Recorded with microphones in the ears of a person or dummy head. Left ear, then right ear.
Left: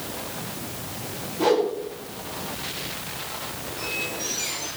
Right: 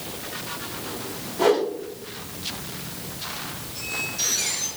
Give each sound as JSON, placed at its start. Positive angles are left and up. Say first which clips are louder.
{"t": 1.4, "sound": "a whoosh", "louder": "right 1 dB", "side_deg": -45, "distance_m": 9.5}
{"t": 3.8, "sound": "a squeak", "louder": "right 2 dB", "side_deg": -75, "distance_m": 7.5}